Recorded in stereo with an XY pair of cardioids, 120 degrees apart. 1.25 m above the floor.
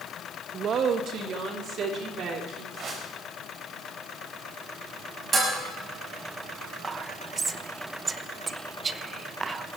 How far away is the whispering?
About 0.9 m.